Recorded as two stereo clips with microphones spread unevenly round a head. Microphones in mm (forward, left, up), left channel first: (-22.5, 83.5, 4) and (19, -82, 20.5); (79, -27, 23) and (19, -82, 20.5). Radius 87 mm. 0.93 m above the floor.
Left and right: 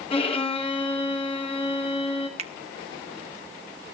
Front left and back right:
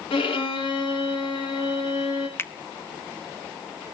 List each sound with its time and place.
0.1 s a violin: 45° left, 2.5 m
2.4 s a finger snap: 20° right, 1.1 m